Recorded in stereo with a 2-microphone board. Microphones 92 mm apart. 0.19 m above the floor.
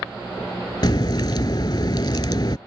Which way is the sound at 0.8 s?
50° left (ahead or behind).